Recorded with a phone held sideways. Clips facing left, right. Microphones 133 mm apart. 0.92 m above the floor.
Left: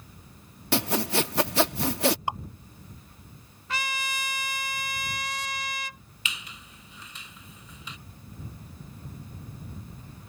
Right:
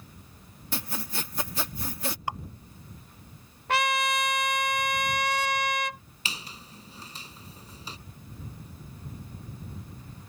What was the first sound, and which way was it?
Sawing, 75° left (ahead or behind).